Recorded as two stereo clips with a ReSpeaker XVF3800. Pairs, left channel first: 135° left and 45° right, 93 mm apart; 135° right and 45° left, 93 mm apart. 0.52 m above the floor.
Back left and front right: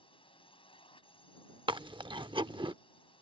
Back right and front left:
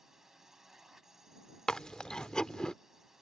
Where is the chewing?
55° right.